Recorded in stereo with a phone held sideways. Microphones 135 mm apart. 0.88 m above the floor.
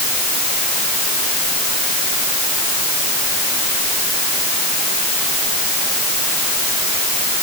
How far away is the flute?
I don't hear a flute.